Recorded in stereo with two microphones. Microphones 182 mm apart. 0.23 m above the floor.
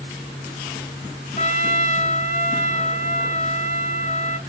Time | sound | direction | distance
1.4 | a trumpet | 45° left (ahead or behind) | 1.1 m